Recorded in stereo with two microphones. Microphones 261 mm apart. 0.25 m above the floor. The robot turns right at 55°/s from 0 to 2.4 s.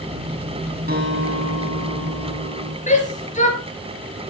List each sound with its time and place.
0.9 s a guitar: 140° right, 4 m; by 2.8 s 60° right, 4 m
2.9 s a shout: 30° left (ahead or behind), 4.5 m